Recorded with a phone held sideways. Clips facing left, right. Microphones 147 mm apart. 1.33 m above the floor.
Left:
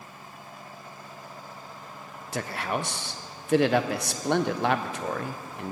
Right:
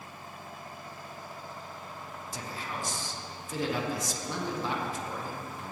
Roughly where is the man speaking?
Left.